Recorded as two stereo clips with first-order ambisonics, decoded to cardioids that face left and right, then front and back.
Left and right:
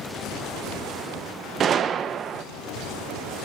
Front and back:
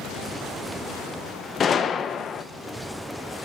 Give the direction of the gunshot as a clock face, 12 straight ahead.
2 o'clock.